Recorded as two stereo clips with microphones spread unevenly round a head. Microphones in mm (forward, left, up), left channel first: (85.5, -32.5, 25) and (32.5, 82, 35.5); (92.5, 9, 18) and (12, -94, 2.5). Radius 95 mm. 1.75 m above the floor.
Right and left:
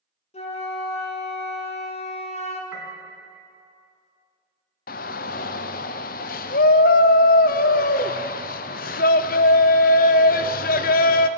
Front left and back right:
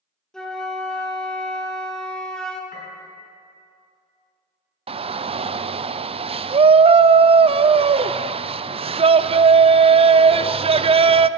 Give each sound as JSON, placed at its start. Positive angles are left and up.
{"t": 0.3, "sound": "a flute", "azimuth_deg": -30, "distance_m": 1.7}
{"t": 2.7, "sound": "a piano", "azimuth_deg": 35, "distance_m": 4.0}
{"t": 4.9, "sound": "a shout", "azimuth_deg": -80, "distance_m": 0.6}